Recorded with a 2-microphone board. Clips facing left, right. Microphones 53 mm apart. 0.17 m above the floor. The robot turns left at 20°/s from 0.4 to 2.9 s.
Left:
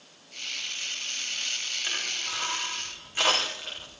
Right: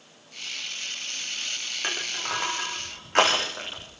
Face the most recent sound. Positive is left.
turn(degrees=-80)